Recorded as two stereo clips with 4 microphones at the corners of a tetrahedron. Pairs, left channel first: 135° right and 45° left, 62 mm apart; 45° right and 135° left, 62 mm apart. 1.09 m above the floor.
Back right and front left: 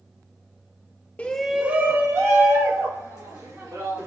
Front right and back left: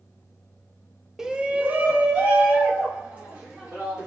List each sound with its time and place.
1.2 s a shout: 155° right, 0.6 m; by 4.1 s 75° left, 2.5 m